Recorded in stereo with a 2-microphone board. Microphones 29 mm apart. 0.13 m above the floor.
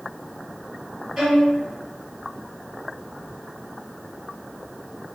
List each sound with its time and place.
1.2 s a violin: 5° right (ahead or behind), 1.3 m